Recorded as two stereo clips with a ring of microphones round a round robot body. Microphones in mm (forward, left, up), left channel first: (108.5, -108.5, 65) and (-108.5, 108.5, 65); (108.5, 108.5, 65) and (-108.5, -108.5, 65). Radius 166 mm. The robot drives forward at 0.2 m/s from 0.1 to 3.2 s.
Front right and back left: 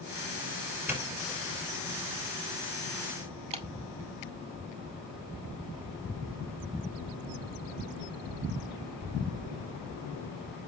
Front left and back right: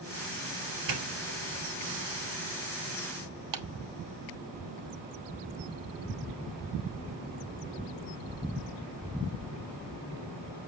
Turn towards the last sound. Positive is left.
turn(degrees=-155)